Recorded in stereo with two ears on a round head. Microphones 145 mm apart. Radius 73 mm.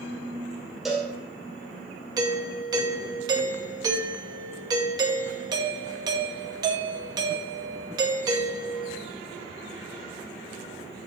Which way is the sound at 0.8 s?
Centre (ahead or behind).